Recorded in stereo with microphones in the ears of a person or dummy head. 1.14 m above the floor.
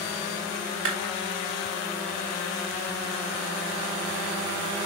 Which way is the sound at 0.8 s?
80° right.